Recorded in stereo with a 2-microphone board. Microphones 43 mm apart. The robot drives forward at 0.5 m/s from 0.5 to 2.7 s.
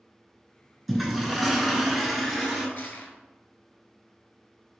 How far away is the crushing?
About 0.7 m.